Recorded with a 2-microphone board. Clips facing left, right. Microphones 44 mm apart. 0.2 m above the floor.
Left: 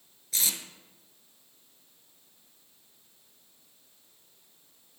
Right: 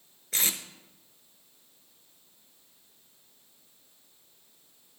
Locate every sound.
0.3 s tape being pulled: 45° right (ahead or behind), 0.6 m